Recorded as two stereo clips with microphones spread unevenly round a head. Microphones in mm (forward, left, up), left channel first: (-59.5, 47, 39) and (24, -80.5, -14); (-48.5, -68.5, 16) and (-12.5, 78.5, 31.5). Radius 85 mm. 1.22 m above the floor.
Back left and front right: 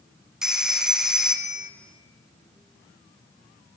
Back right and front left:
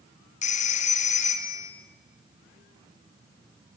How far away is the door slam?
No door slam in this recording.